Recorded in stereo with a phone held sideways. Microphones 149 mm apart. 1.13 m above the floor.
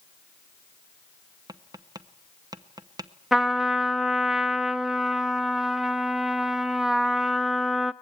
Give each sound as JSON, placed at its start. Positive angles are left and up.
{"t": 1.5, "sound": "tapping", "side_deg": -25, "distance_m": 0.9}
{"t": 3.3, "sound": "a trumpet", "side_deg": -5, "distance_m": 0.5}